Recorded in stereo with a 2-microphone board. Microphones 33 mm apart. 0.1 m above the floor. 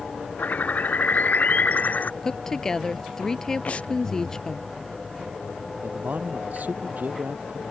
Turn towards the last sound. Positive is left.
turn(degrees=-60)  # may be behind; listen again after turning